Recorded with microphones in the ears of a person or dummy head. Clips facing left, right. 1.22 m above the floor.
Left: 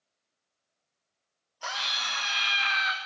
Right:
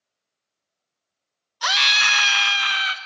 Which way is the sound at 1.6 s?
75° right (ahead or behind).